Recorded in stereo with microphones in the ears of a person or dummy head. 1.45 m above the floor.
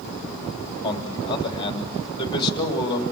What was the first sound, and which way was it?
A man speaking, 25° left (ahead or behind).